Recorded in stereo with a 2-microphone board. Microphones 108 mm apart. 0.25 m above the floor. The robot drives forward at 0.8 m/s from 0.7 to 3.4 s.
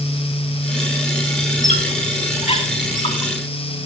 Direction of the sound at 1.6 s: 80° left.